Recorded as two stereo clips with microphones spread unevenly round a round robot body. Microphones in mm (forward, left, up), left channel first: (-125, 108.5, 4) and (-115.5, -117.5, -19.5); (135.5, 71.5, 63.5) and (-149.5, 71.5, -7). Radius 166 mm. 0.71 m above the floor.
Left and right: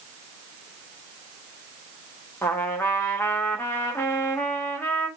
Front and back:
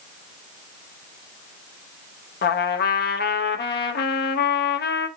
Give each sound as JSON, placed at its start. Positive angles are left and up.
{"t": 2.4, "sound": "a trumpet", "azimuth_deg": 10, "distance_m": 1.0}